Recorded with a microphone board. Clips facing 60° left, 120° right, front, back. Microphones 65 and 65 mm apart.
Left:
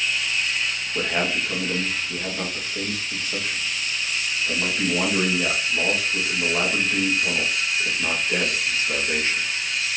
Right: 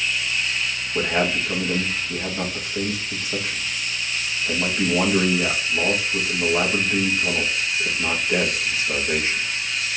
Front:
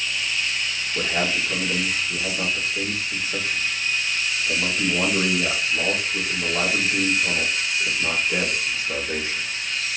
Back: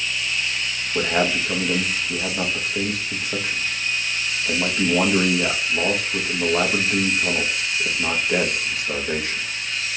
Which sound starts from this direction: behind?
A man speaking, at 0.9 s.